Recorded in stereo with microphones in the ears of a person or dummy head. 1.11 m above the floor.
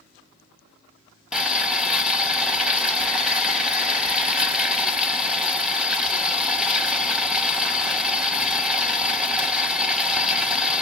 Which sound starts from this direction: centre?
Boiling, at 1.3 s.